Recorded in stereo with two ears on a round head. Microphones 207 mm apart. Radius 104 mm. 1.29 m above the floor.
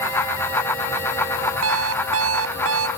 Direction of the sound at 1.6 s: 70° right (ahead or behind).